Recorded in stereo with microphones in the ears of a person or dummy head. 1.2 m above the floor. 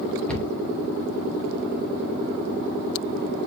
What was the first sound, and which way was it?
A cupboard door, 5° left (ahead or behind).